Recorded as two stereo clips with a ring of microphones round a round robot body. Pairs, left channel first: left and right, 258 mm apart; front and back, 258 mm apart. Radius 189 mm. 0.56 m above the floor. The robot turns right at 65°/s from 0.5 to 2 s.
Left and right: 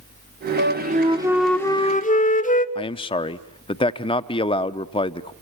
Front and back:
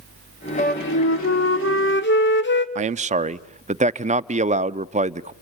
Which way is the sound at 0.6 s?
55° right.